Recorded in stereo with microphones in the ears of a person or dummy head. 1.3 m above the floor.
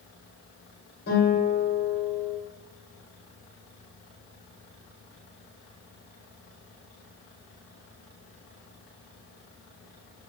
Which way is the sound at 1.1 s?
50° left (ahead or behind).